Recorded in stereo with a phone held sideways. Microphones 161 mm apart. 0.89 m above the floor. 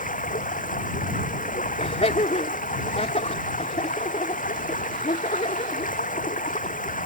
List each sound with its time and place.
0.0 s running water: 55° left (ahead or behind)
1.8 s laughter: 45° left (ahead or behind)